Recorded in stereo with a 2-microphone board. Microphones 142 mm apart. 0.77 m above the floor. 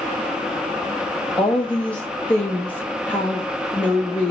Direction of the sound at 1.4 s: 10° left (ahead or behind).